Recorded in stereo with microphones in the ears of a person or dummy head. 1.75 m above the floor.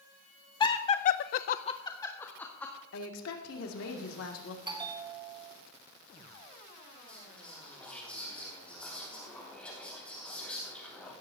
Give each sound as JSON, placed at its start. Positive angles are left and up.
{"t": 0.6, "sound": "laughter", "side_deg": 20, "distance_m": 1.0}
{"t": 2.9, "sound": "a woman speaking", "side_deg": 80, "distance_m": 2.0}
{"t": 4.7, "sound": "a bell", "side_deg": -30, "distance_m": 0.9}
{"t": 7.1, "sound": "whispering", "side_deg": 5, "distance_m": 3.0}